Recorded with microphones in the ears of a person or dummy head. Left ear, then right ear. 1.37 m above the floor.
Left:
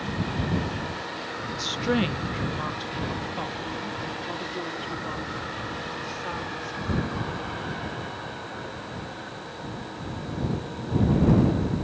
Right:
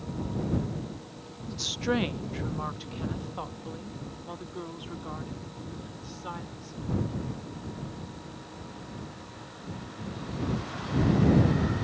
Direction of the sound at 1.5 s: 25° right (ahead or behind).